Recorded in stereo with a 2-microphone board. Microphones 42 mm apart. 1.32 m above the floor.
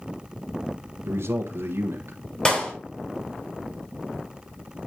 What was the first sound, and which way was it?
A man speaking, 70° right (ahead or behind).